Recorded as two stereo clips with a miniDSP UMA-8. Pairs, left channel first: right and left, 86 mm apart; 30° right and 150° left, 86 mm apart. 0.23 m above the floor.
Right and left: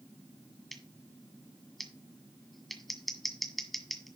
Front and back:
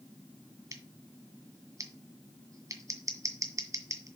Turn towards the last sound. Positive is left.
turn(degrees=180)